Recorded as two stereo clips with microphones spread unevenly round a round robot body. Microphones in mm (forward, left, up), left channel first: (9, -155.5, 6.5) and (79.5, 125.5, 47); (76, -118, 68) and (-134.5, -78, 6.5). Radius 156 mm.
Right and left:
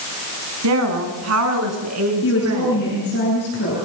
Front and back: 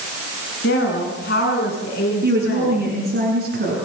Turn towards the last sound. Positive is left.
turn(degrees=-155)